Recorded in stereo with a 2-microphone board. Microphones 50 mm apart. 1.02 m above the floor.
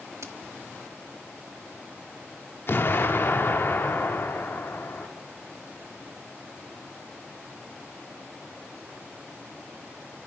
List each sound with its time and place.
0.2 s a crack: 65° right (ahead or behind), 1.4 m
2.7 s an explosion: 50° left (ahead or behind), 1.7 m